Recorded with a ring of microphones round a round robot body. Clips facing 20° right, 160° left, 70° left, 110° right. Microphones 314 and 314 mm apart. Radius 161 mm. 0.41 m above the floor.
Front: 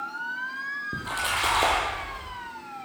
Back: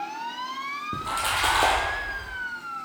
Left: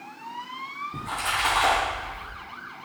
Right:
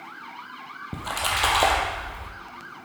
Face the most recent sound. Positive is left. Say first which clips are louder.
# back 1 dB, right 3 dB
turn(degrees=-115)